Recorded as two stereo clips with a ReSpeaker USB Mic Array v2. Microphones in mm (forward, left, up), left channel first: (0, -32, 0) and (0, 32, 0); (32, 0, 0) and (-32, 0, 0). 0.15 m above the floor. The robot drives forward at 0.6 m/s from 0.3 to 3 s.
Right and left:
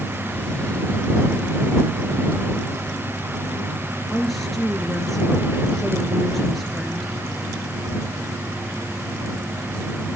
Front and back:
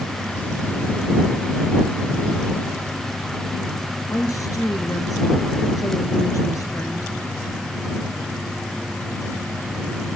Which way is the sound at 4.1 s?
Straight ahead.